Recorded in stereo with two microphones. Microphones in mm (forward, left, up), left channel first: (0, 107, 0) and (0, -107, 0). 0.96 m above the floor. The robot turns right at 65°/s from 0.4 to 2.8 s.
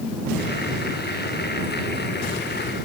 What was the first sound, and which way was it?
Only background noise.